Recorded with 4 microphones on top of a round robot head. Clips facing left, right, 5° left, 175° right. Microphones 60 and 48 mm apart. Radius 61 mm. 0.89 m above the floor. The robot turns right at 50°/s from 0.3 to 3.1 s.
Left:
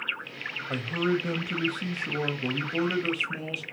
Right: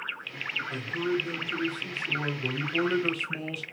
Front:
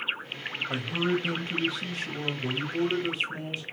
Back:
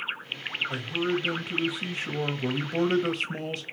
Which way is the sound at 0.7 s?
60° left.